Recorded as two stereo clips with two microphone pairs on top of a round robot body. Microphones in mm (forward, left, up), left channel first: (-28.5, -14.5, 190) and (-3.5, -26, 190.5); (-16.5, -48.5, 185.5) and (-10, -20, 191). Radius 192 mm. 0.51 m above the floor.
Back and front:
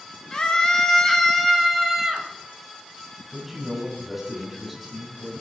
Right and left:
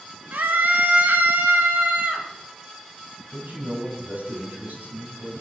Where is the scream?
95° left, 3.5 m; by 2.3 s 60° left, 3.5 m.